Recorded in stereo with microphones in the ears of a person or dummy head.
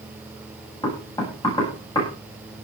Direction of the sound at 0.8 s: 20° left (ahead or behind).